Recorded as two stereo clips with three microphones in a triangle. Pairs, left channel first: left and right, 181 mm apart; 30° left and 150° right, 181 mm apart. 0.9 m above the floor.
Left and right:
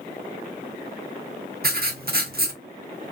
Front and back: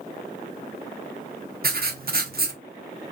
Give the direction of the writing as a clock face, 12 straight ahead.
4 o'clock.